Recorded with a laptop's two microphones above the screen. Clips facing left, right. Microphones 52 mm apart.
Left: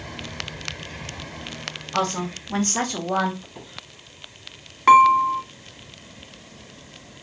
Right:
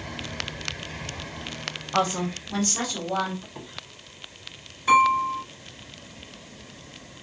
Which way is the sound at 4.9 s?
70° left (ahead or behind).